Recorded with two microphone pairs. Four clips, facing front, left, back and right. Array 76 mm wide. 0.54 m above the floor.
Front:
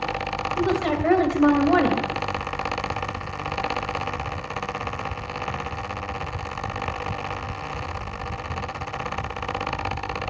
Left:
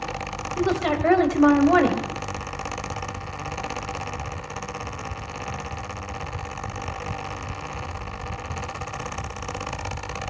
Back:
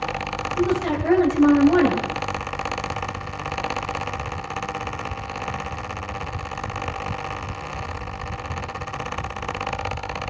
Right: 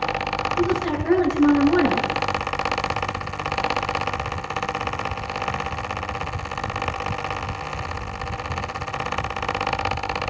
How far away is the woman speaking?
About 3 m.